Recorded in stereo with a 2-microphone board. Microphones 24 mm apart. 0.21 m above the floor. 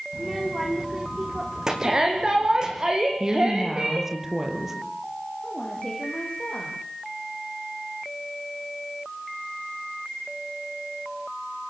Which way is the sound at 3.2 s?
15° right (ahead or behind).